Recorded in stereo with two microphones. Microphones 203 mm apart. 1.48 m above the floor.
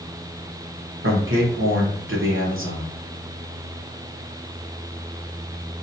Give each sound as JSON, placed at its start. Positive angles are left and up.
{"t": 1.0, "sound": "a man speaking", "side_deg": -80, "distance_m": 1.2}